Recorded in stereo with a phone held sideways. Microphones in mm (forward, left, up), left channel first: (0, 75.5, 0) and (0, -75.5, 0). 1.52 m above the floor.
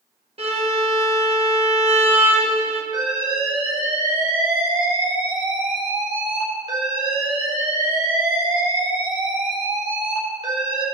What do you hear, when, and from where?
0.4 s a violin: 40° right (ahead or behind), 1.3 m
2.9 s an alarm: 35° right (ahead or behind), 4 m